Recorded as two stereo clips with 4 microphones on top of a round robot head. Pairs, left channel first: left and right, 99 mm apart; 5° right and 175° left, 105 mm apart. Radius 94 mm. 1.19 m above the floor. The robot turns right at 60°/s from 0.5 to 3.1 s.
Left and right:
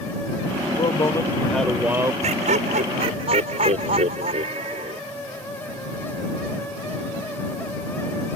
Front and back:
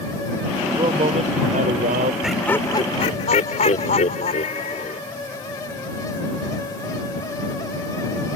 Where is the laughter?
100° right; by 5.0 s 50° right.